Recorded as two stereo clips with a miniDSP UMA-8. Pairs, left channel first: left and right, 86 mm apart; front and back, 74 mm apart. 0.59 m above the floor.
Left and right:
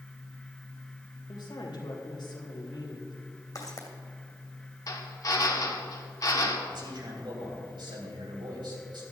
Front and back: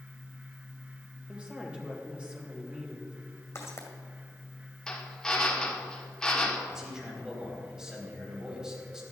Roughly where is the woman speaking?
Left.